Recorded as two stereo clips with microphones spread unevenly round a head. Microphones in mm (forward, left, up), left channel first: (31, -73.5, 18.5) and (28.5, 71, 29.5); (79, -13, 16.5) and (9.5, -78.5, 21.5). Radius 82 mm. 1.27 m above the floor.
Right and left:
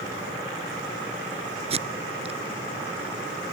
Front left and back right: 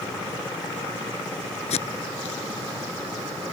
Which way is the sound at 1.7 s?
45° left.